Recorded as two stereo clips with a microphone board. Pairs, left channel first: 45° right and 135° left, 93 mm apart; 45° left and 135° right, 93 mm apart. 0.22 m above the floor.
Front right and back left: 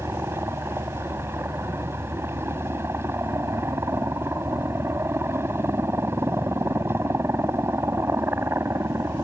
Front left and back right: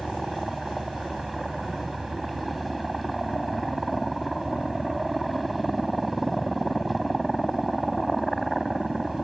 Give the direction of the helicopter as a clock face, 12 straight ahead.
8 o'clock.